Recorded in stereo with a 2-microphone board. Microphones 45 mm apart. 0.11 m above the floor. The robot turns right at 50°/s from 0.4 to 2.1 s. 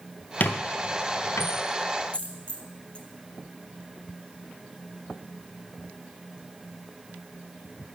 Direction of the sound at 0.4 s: 40° left (ahead or behind).